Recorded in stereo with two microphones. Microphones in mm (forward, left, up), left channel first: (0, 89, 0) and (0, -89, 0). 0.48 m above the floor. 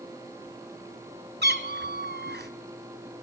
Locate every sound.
1.4 s a cat meowing: 70° right (ahead or behind), 1.1 m